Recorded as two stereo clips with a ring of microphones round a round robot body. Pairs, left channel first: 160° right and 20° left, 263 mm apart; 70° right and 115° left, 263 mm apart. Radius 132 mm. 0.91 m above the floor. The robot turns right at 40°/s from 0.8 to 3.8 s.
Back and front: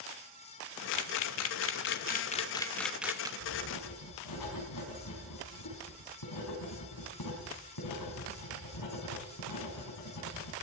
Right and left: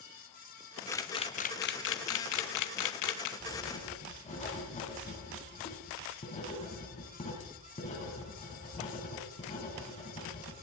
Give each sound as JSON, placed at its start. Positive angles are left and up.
{"t": 0.9, "sound": "a camera shutter", "azimuth_deg": -150, "distance_m": 0.8}
{"t": 3.4, "sound": "writing", "azimuth_deg": -150, "distance_m": 4.0}